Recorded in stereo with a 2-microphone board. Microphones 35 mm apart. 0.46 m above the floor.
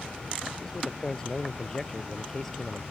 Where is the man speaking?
15° left (ahead or behind).